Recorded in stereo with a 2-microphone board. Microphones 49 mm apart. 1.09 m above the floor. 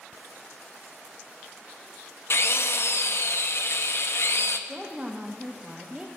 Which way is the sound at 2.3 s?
55° left (ahead or behind).